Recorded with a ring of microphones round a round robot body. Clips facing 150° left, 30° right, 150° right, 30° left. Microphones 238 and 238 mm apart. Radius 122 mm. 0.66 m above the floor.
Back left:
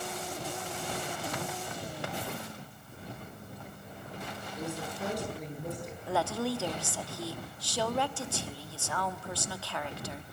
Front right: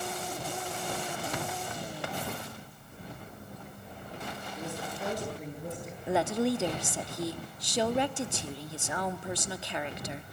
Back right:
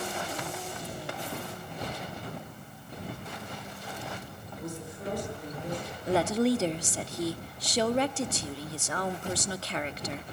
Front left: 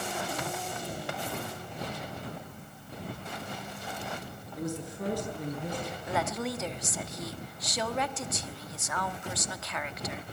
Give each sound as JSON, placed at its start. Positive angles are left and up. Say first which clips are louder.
{"t": 4.6, "sound": "a woman speaking", "louder": "back left 2 dB, front left 4 dB", "azimuth_deg": 60, "distance_m": 9.5}
{"t": 6.1, "sound": "a woman speaking", "louder": "front right 4 dB, back right 9 dB", "azimuth_deg": -95, "distance_m": 1.2}